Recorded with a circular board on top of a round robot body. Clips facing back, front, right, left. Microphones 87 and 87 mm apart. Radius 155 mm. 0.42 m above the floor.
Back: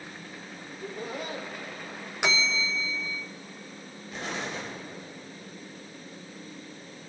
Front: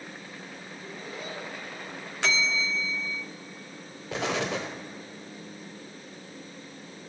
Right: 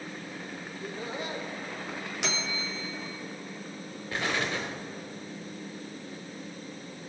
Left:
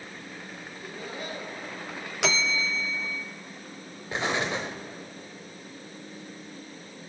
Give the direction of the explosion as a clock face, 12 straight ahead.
11 o'clock.